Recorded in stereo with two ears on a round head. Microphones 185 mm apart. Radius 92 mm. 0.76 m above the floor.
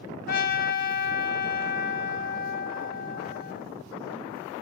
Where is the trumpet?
45° left (ahead or behind), 3.5 m.